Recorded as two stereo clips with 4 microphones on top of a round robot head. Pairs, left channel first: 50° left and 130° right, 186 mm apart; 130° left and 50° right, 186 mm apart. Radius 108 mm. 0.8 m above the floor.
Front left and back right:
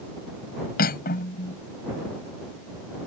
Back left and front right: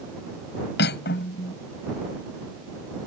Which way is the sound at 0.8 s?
95° left.